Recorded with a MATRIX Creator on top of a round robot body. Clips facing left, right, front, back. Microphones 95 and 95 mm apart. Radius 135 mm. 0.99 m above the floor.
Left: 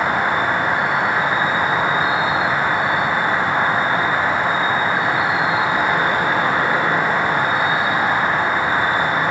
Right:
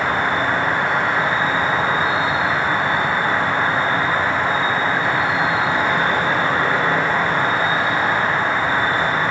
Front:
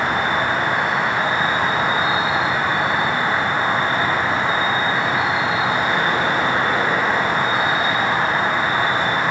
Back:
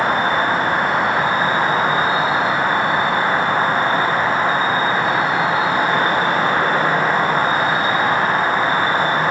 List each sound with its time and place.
0.0 s an insect: 160° left, 2.0 m